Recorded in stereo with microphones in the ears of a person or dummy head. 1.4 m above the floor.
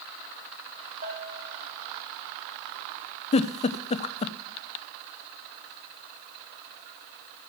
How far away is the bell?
About 4.5 m.